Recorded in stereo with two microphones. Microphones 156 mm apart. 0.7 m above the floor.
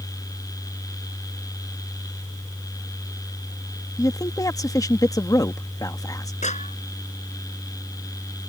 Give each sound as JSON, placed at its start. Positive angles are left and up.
{"t": 4.0, "sound": "a man speaking", "side_deg": 25}
{"t": 6.4, "sound": "a clap", "side_deg": 50}